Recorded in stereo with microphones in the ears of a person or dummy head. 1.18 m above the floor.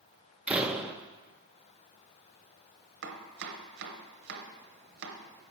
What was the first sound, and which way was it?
A door slam, centre (ahead or behind).